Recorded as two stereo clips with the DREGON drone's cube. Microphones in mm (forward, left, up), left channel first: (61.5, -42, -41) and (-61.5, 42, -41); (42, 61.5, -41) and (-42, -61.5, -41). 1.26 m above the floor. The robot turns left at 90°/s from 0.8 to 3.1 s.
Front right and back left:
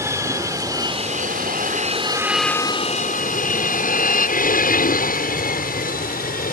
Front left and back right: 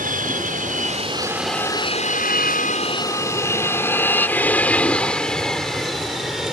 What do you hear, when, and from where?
0.0 s an aircraft: 145° right; by 6.5 s 40° right